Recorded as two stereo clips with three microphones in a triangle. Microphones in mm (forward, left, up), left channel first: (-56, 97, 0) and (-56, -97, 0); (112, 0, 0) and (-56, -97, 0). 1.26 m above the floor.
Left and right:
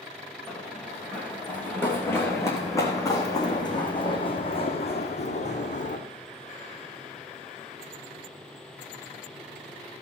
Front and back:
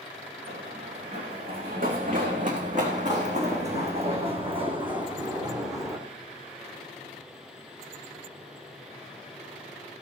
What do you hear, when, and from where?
0.5 s running footsteps: 175° left, 4.5 m; by 6.0 s 135° left, 3.5 m